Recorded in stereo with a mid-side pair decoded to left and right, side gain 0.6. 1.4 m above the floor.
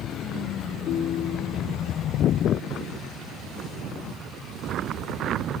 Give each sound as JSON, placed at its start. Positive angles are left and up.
{"t": 0.9, "sound": "a ringtone", "azimuth_deg": 50, "distance_m": 2.5}